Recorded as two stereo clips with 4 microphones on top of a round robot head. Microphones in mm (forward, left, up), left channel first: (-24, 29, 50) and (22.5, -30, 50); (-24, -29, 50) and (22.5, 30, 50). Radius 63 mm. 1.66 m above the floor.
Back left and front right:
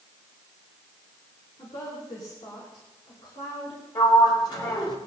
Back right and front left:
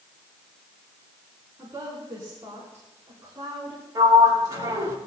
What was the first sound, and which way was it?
A woman speaking, 105° left.